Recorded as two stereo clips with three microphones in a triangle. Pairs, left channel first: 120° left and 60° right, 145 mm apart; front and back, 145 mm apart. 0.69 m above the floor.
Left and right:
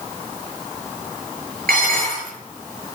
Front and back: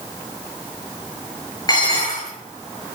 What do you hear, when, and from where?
1.7 s dishes clattering: 65° right, 7.5 m